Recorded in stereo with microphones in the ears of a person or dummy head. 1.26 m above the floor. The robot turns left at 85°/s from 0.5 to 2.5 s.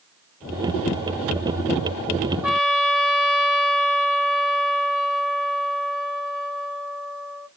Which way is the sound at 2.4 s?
5° right (ahead or behind).